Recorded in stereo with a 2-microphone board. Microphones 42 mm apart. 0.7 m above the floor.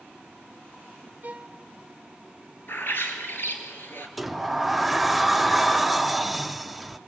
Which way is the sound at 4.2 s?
Centre (ahead or behind).